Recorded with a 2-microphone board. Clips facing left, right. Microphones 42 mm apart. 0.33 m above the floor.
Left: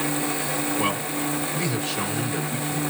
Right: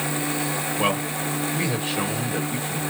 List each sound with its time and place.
0.8 s a man speaking: 25° right (ahead or behind), 1.3 m